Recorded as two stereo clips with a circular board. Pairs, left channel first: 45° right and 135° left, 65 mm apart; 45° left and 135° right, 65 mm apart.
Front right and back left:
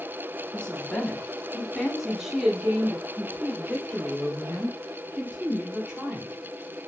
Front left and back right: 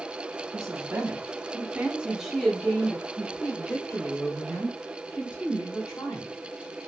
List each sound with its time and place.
0.5 s a woman speaking: 120° right, 1.6 m; by 6.3 s 70° left, 3 m